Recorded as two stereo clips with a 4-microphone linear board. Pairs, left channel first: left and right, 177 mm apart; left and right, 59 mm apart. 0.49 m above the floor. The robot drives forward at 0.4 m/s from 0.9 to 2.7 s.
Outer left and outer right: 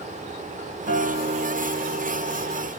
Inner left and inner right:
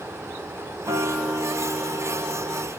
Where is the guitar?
70° right (ahead or behind), 1.4 m; by 2.7 s 80° right, 1.3 m.